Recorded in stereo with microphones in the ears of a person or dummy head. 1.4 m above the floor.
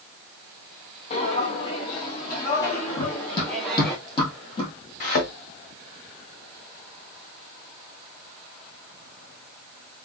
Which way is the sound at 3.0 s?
35° left (ahead or behind).